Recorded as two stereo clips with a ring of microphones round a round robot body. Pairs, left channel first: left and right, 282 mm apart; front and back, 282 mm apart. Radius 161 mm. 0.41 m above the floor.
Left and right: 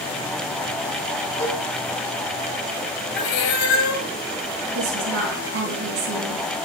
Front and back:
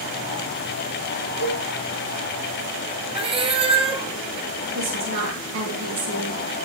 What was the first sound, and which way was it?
A cowbell, 25° left.